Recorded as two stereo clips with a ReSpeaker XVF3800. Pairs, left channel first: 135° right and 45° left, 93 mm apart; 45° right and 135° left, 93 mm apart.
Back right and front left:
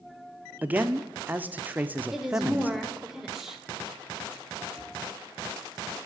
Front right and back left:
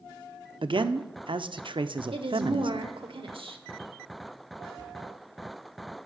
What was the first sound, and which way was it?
A man speaking, 115° left.